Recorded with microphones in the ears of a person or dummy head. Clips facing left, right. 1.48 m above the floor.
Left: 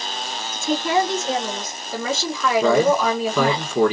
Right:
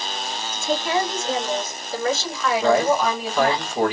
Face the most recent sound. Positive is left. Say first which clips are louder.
# left 1 dB
turn(degrees=80)